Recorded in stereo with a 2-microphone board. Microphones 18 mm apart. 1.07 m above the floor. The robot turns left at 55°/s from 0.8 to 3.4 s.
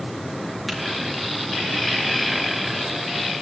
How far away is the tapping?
About 7.5 m.